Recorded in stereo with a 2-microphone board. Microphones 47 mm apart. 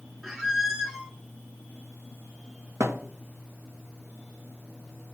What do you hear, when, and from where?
0.2 s a squeak: 10° right (ahead or behind), 1.4 m
2.8 s a thud: 65° right (ahead or behind), 1.2 m